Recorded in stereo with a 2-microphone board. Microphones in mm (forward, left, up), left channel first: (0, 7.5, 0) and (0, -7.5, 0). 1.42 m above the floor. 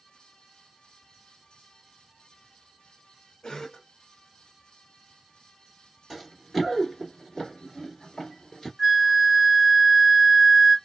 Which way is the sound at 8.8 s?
15° right (ahead or behind).